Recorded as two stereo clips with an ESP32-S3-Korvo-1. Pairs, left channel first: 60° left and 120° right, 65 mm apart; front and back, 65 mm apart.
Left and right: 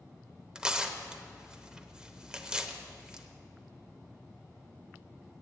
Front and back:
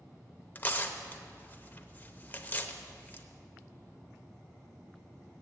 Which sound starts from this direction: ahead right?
Tearing paper, at 0.6 s.